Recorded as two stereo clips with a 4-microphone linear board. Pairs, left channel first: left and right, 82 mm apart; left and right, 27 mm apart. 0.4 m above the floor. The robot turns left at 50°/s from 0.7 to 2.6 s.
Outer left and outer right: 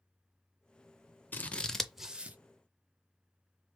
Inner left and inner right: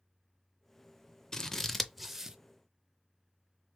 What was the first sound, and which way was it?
Scissors, 25° left (ahead or behind).